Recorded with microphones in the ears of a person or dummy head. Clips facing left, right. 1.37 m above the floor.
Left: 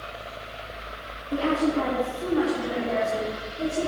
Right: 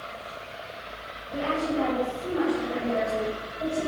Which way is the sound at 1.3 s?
65° left (ahead or behind).